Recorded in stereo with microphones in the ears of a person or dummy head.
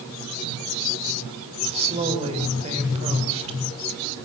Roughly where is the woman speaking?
Right.